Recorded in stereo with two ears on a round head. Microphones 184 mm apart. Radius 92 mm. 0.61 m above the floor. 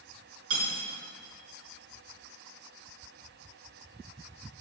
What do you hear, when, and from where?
0.5 s cutlery clinking: 65° right (ahead or behind), 3.5 m